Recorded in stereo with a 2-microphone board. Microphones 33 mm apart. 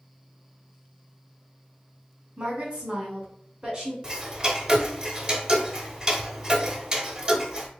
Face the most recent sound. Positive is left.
turn(degrees=-25)  # may be behind; listen again after turning